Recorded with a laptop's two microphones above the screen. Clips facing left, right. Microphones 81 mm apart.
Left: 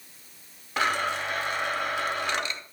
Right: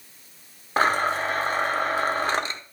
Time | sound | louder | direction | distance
0.8 | a blender | right 5 dB | 40° right (ahead or behind) | 1.0 m